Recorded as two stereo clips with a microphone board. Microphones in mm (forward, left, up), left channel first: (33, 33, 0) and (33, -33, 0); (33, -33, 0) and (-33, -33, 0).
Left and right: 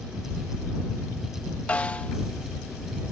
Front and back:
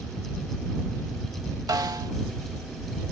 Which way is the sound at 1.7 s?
160° left.